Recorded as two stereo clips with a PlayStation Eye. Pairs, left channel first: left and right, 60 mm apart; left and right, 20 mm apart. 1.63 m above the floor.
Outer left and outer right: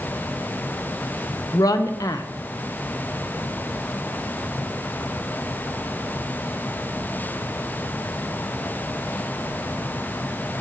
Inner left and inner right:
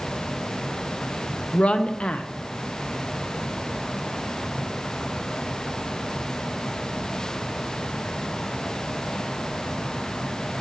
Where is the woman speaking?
70° left (ahead or behind), 0.7 m.